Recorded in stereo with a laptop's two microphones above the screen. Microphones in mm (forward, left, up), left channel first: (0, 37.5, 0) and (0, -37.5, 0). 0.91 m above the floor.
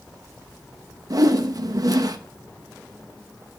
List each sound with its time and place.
1.1 s a whoosh: 50° right (ahead or behind), 0.9 m